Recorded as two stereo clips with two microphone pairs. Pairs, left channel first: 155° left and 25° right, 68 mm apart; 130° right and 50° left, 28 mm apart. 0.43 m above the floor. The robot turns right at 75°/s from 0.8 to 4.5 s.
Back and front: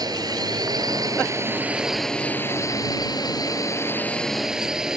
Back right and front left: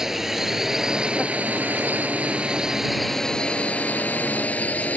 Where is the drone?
25° right; by 5.0 s 105° right.